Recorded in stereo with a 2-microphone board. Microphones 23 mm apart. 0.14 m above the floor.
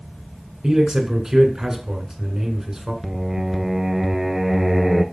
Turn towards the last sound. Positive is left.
turn(degrees=-15)  # may be behind; listen again after turning